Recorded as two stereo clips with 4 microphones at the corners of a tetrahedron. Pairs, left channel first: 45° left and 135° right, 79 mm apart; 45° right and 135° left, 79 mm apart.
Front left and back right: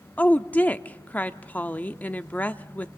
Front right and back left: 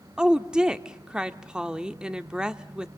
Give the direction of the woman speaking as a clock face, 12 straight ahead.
9 o'clock.